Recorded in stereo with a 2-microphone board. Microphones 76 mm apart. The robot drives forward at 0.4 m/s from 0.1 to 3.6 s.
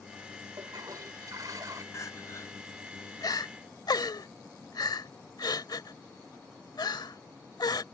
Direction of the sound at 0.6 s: 60° right (ahead or behind).